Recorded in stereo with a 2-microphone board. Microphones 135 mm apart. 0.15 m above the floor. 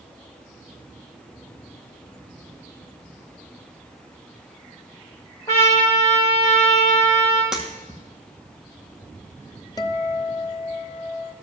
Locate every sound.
5.5 s a trumpet: 25° left (ahead or behind), 3.5 m
7.5 s breaking glass: 5° right (ahead or behind), 2 m
9.8 s a guitar: 25° left (ahead or behind), 0.7 m